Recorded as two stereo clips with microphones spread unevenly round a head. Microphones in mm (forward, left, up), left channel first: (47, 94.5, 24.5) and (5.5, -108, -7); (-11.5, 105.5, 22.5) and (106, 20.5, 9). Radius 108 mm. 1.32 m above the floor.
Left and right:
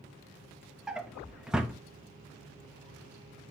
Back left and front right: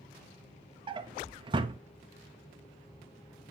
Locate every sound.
0.9 s a drawer: 5° right, 0.6 m